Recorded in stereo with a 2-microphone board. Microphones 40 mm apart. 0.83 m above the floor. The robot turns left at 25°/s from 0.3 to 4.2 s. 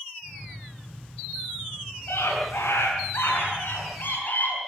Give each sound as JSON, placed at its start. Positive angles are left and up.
{"t": 2.1, "sound": "a scream", "azimuth_deg": 105, "distance_m": 8.0}